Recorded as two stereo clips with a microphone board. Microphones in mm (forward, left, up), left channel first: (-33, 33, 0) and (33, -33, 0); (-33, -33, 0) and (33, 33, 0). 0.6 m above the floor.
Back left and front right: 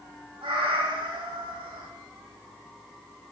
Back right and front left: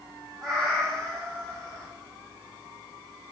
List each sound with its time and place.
0.4 s a cat meowing: 50° right, 0.7 m